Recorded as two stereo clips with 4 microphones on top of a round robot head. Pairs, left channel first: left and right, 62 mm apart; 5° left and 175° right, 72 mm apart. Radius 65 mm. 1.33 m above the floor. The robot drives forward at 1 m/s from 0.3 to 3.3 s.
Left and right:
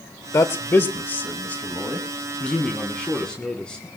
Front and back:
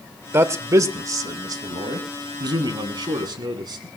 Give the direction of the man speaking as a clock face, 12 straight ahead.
8 o'clock.